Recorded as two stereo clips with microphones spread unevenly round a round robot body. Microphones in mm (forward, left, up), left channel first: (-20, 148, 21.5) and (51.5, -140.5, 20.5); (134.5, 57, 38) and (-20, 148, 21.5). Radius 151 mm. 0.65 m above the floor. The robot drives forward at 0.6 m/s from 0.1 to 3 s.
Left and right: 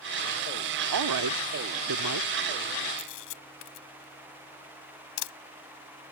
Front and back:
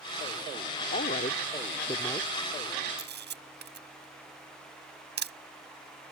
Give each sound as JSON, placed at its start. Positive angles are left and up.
{"t": 0.9, "sound": "a woman speaking", "azimuth_deg": -80}
{"t": 3.0, "sound": "a camera shutter", "azimuth_deg": 130}